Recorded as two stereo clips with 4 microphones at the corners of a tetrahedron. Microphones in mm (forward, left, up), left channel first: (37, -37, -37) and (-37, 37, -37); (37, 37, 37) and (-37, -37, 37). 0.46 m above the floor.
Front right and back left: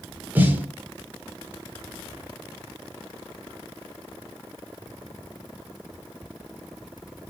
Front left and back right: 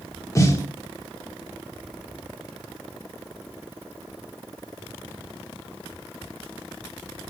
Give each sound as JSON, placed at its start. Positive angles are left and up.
{"t": 0.3, "sound": "a snare drum", "azimuth_deg": 80, "distance_m": 1.5}